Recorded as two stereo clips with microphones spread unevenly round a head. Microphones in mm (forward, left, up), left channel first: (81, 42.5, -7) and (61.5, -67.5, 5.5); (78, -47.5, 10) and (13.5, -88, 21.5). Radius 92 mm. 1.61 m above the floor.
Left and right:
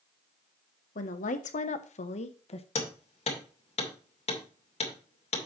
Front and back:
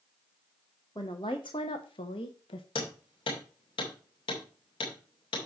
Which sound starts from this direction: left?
A woman speaking, at 0.9 s.